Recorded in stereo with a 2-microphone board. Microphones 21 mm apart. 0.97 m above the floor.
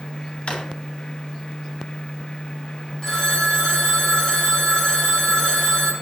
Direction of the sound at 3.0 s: 25° left (ahead or behind).